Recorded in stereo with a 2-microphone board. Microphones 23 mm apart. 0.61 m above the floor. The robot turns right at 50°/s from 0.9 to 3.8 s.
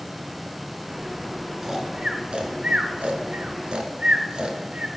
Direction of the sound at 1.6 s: 20° right (ahead or behind).